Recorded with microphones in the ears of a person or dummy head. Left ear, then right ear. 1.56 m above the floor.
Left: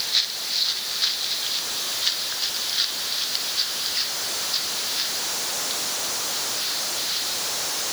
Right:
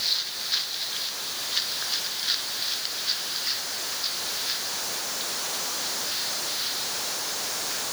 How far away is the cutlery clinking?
I don't hear cutlery clinking.